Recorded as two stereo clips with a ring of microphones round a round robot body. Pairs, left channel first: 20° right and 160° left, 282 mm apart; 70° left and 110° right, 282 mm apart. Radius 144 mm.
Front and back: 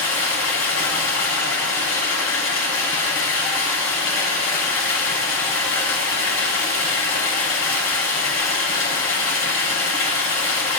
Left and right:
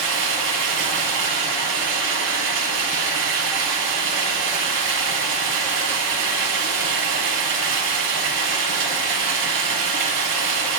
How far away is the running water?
About 5.5 m.